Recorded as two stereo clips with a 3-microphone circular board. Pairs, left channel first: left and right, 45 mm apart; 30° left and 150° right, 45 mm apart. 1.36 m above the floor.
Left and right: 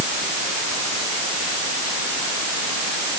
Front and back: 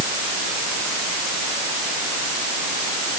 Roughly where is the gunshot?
I don't hear a gunshot.